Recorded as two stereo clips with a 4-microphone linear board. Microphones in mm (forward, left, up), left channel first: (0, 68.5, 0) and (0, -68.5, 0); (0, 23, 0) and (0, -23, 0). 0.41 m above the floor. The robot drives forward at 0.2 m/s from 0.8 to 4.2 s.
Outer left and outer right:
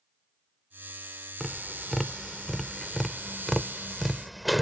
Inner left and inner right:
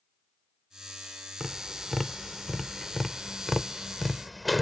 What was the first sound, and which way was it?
Tapping, centre (ahead or behind).